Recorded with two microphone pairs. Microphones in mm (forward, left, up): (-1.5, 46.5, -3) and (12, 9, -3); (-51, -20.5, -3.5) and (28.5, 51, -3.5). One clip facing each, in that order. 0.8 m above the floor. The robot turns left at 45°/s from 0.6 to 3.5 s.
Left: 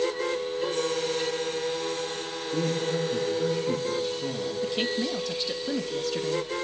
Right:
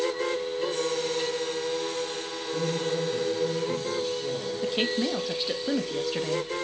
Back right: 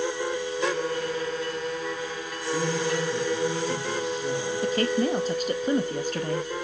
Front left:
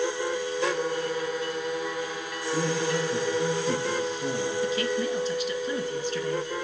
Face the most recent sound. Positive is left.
turn(degrees=-145)